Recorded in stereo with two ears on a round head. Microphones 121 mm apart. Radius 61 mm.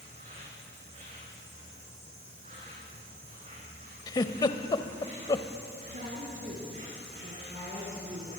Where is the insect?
45° right (ahead or behind), 9 m.